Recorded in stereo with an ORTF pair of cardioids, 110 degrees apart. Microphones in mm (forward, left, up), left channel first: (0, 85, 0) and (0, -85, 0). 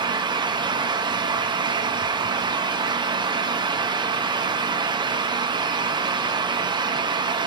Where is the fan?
25° right, 0.9 m.